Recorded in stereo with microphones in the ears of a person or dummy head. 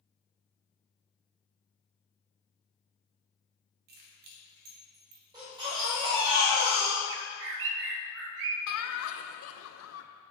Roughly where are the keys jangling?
Right.